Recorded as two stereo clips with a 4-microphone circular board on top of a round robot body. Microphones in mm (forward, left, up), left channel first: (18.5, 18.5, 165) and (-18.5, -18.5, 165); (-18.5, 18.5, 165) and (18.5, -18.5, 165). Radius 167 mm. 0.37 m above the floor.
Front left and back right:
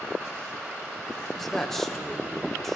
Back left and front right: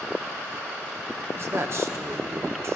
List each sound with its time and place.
1.4 s a man speaking: 40° right, 1.3 m